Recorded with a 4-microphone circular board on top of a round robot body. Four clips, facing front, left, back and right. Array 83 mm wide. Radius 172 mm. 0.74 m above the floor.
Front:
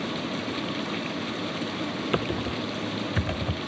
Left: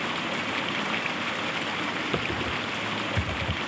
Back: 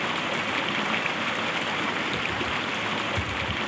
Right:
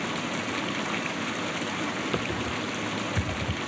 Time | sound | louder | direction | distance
0.0 | running water | left 1 dB, back 2 dB | 165° left | 0.9 m
2.1 | typing on a keyboard | even, front 1 dB | 5° left | 0.6 m